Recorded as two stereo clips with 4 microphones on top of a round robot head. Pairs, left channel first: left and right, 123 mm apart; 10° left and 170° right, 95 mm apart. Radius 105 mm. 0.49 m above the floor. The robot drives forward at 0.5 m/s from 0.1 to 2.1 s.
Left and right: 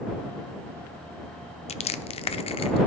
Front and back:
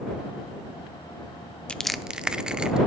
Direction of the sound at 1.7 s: 90° left.